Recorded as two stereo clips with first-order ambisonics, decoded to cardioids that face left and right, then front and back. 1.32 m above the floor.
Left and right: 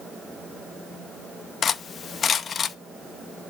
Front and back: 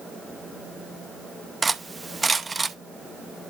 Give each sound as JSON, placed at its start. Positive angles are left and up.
{"t": 1.6, "sound": "cutlery clinking", "azimuth_deg": 115, "distance_m": 0.6}